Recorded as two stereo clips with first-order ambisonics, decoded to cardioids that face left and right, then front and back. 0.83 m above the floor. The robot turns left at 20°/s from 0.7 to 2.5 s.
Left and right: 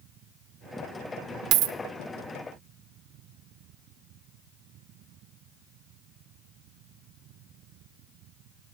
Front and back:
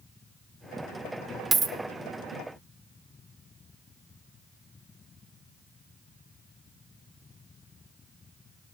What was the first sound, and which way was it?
A dropped coin, 110° right.